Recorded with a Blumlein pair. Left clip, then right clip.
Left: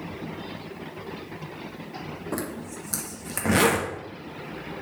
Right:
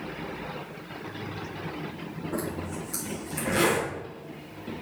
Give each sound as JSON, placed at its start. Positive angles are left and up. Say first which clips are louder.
{"t": 2.3, "sound": "a zipper", "louder": "right 1 dB", "azimuth_deg": 55, "distance_m": 1.7}